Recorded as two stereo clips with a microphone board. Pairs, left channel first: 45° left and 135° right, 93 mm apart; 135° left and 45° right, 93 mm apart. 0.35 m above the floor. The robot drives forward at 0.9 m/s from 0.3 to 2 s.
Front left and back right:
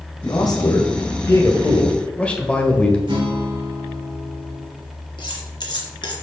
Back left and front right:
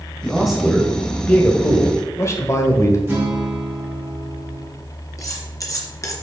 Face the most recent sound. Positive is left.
turn(degrees=85)